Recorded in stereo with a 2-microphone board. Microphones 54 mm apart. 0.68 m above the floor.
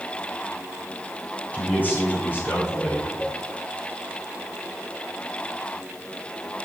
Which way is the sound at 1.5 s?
30° left (ahead or behind).